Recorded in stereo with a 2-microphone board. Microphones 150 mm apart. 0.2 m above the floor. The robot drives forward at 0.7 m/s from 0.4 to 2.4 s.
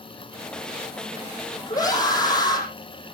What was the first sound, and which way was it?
A scream, 25° left (ahead or behind).